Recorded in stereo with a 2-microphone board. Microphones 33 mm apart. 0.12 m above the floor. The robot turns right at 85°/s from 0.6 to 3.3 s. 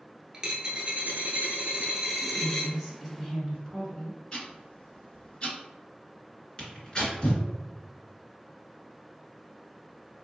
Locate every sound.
0.3 s a dropped coin: 140° right, 0.9 m; by 2.7 s 40° left, 0.9 m
2.2 s a woman speaking: 10° right (ahead or behind), 1.1 m; by 4.2 s 15° left (ahead or behind), 1.1 m
4.3 s ticking: 30° left (ahead or behind), 1.6 m
6.6 s tearing paper: 25° left (ahead or behind), 1.5 m